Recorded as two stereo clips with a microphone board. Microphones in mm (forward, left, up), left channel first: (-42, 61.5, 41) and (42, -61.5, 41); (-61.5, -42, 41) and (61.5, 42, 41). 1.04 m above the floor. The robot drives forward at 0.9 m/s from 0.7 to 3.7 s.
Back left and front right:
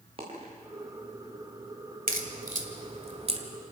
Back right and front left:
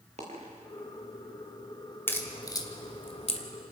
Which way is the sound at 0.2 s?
5° right.